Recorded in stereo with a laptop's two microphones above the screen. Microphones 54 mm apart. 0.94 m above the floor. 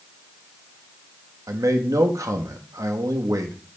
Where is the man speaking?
70° right (ahead or behind), 1.1 m.